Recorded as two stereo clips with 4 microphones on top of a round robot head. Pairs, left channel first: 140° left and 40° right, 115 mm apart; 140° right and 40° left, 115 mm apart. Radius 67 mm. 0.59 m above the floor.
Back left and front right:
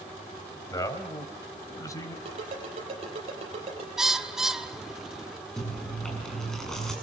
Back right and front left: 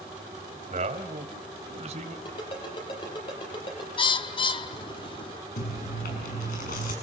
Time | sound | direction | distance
0.7 | a man speaking | 75° left | 3 m
2.2 | a ringtone | 85° right | 8 m
4.0 | a bird | 130° right | 1.3 m
5.6 | chewing | 135° right | 7 m